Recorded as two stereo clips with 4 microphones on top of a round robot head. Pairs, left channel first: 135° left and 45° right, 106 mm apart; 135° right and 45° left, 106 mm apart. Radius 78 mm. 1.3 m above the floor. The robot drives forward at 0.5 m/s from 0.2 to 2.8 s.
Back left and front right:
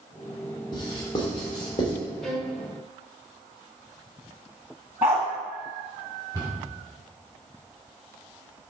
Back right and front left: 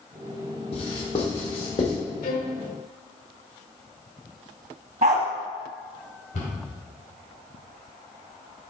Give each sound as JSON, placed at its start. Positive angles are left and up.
{"t": 0.7, "sound": "writing", "azimuth_deg": -175, "distance_m": 1.3}
{"t": 2.2, "sound": "a violin", "azimuth_deg": -140, "distance_m": 1.1}
{"t": 5.0, "sound": "a dog barking", "azimuth_deg": 25, "distance_m": 0.8}
{"t": 6.3, "sound": "a cupboard door", "azimuth_deg": -155, "distance_m": 3.0}